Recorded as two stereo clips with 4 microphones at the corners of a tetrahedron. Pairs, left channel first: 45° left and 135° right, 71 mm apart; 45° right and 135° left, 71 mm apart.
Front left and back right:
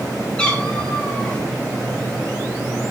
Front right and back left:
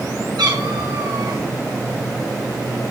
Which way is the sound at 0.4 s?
125° left.